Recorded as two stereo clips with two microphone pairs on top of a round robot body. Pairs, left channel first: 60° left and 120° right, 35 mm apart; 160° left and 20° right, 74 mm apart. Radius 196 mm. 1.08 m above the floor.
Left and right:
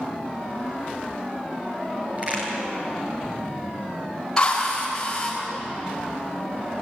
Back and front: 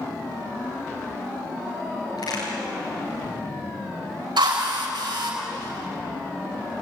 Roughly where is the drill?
Ahead.